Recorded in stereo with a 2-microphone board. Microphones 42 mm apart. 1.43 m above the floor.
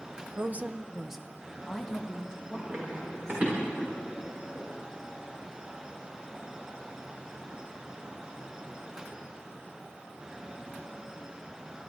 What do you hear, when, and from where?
0.3 s a woman speaking: 50° right (ahead or behind), 0.7 m; by 3.5 s 25° left (ahead or behind), 3 m
2.5 s running footsteps: 35° right (ahead or behind), 6.5 m; by 4.7 s 40° right (ahead or behind), 8 m